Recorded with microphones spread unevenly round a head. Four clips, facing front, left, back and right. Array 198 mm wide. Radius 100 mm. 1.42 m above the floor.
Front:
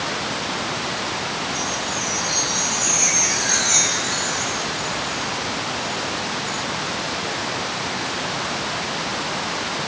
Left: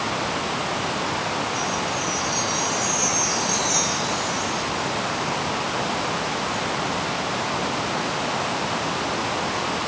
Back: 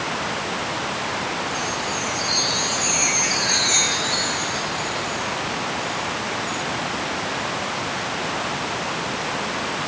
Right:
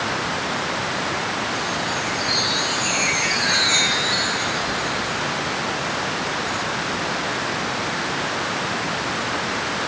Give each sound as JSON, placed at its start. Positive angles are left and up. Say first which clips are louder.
{"t": 1.5, "sound": "a chime", "louder": "even, even", "azimuth_deg": -70}